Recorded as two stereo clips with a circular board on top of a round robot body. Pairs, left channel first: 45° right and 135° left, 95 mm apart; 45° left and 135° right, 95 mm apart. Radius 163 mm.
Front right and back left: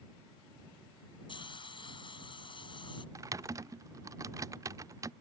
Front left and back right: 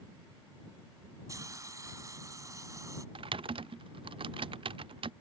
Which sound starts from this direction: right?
A hiss, at 1.3 s.